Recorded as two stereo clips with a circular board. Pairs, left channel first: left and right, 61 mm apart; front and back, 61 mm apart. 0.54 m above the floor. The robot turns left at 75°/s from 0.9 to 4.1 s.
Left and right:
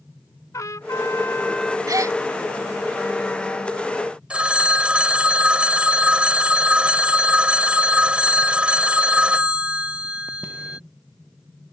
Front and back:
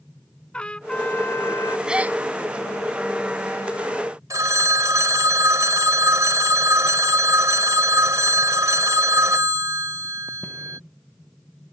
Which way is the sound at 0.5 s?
70° left.